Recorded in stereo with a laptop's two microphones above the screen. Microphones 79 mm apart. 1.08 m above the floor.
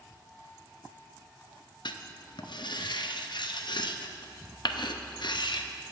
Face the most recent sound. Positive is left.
turn(degrees=65)  # may be behind; listen again after turning